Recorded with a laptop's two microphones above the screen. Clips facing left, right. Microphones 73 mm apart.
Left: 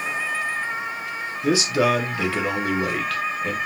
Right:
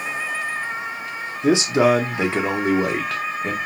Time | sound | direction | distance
1.4 | a man speaking | 25° right (ahead or behind) | 0.5 m